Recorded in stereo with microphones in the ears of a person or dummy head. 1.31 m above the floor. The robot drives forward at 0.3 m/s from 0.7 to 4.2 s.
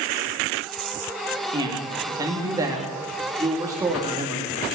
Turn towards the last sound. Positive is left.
turn(degrees=-15)  # may be behind; listen again after turning